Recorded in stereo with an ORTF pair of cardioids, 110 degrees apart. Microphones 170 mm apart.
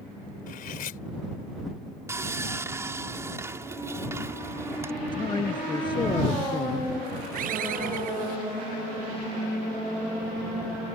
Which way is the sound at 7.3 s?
55° right.